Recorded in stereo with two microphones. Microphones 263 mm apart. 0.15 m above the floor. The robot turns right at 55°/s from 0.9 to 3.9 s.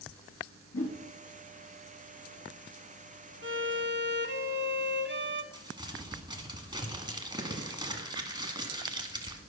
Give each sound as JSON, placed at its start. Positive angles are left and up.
{"t": 0.7, "sound": "a whoosh", "side_deg": 60, "distance_m": 1.8}
{"t": 3.4, "sound": "a violin", "side_deg": -50, "distance_m": 0.6}
{"t": 5.5, "sound": "crumpling", "side_deg": -15, "distance_m": 1.3}